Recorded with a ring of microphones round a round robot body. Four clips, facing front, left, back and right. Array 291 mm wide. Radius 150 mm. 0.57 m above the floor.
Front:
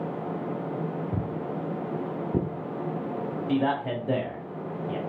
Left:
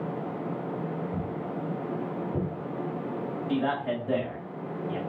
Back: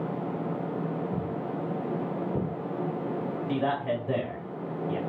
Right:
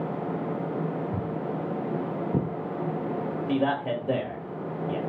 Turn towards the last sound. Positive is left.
turn(degrees=-50)